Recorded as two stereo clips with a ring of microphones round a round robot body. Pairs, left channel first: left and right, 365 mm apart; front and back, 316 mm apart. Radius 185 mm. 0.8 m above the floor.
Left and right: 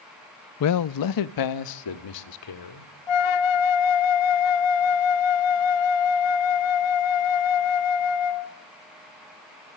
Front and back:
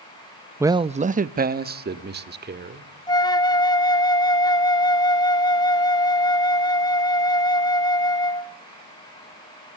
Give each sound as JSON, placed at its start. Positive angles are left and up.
{"t": 0.6, "sound": "a man speaking", "azimuth_deg": 100, "distance_m": 0.5}
{"t": 3.1, "sound": "a flute", "azimuth_deg": 80, "distance_m": 0.9}